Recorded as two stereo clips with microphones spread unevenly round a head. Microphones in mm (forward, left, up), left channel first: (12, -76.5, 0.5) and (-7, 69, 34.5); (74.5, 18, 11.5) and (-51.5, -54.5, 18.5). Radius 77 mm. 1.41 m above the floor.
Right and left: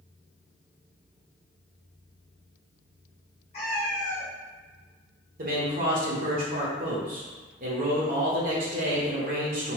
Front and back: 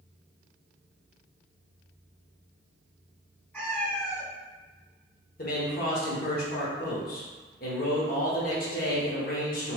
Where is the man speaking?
60° left, 0.9 m.